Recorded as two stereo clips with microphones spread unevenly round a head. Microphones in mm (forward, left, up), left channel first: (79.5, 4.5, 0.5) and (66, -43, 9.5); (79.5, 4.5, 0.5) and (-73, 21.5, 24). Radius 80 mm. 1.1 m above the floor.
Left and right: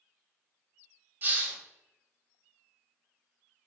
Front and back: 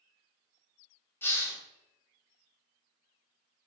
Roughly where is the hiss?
Right.